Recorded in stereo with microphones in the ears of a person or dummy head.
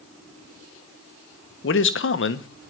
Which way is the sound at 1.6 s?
60° left (ahead or behind).